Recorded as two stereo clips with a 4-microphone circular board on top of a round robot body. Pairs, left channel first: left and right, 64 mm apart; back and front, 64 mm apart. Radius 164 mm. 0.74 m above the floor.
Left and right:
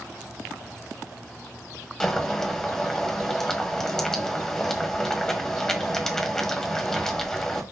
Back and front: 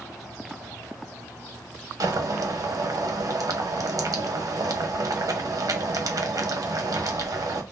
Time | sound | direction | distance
2.0 | boiling | 5° left | 1.3 m